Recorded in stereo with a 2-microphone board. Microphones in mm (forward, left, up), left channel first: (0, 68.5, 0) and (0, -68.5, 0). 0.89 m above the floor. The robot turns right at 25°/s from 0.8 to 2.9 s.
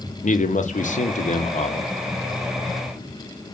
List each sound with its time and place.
0.2 s a man speaking: 65° left (ahead or behind), 0.6 m; by 1.9 s 50° left (ahead or behind), 0.6 m